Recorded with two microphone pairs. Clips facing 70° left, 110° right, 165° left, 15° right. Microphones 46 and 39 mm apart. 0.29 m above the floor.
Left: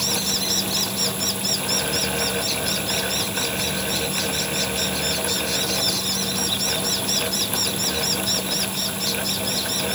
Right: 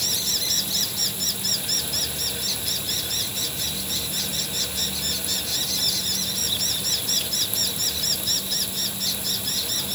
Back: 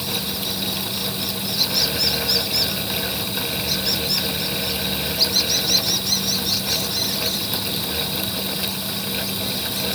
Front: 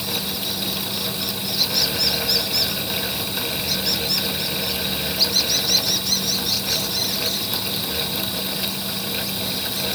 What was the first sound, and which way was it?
Only background noise.